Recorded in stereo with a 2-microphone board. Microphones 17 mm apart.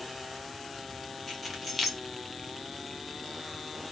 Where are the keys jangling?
Centre (ahead or behind), 1.2 m.